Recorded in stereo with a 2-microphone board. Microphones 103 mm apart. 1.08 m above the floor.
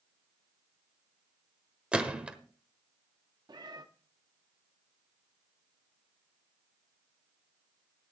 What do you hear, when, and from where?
1.9 s a gunshot: 10° right (ahead or behind), 1.2 m
3.5 s a cat meowing: 45° right (ahead or behind), 0.8 m